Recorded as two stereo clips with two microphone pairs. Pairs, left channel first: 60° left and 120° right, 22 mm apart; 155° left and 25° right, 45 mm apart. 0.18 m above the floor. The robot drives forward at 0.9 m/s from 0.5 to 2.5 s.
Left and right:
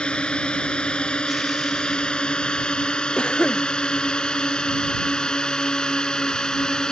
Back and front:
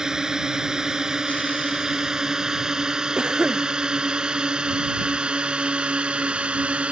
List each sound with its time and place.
0.0 s a drone: 45° left; by 6.9 s 30° left
3.2 s a cough: 40° left